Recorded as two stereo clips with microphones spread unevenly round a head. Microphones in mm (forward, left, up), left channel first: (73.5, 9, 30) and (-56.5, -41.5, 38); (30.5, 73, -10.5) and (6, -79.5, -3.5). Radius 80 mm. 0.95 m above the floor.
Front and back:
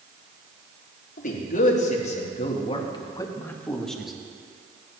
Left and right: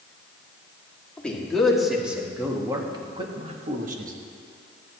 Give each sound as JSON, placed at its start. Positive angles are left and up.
{"t": 1.2, "sound": "a man speaking", "azimuth_deg": 0, "distance_m": 2.0}